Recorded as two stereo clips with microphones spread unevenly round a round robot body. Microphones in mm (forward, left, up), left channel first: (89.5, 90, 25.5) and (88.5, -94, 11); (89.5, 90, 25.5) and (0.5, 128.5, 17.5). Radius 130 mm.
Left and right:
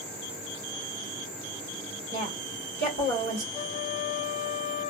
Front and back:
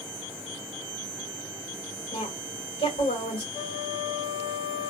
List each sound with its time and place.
2.1 s a woman speaking: 65° right, 2.5 m
3.5 s a flute: 50° right, 2 m